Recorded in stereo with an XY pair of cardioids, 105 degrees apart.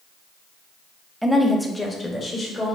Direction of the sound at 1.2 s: 10° right.